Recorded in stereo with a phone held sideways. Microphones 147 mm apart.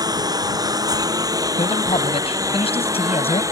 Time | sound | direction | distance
0.0 | a lawn mower | 25° right (ahead or behind) | ?
1.6 | a man speaking | 40° left (ahead or behind) | ?